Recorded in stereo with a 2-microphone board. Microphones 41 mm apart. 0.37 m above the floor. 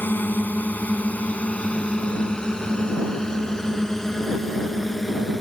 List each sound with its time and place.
0.0 s a drone: 55° left (ahead or behind); by 5.4 s centre (ahead or behind)